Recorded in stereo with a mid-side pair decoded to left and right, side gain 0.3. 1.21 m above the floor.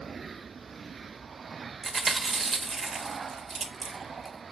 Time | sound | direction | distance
1.8 | chewing | 55° right | 1.1 m